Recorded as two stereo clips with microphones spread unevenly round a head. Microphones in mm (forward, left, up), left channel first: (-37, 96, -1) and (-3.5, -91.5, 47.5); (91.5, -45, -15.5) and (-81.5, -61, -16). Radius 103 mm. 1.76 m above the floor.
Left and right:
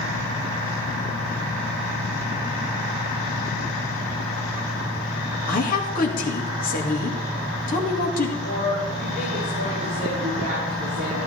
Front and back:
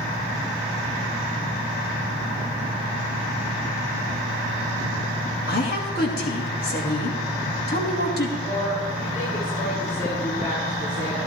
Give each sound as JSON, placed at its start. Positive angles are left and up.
{"t": 5.5, "sound": "a woman speaking", "azimuth_deg": 50, "distance_m": 2.5}
{"t": 8.4, "sound": "a woman speaking", "azimuth_deg": -35, "distance_m": 6.0}